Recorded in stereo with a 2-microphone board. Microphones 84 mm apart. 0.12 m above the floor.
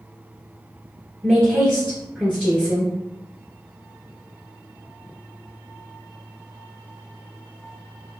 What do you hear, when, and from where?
1.2 s a woman speaking: 5° right (ahead or behind), 1.2 m